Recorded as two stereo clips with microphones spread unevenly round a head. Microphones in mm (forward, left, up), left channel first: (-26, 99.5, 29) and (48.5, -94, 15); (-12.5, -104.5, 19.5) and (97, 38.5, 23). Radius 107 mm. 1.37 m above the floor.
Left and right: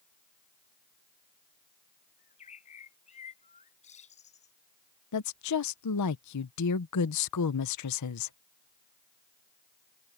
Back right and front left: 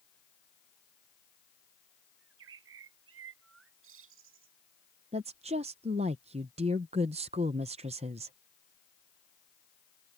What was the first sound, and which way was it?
A bird, 55° left.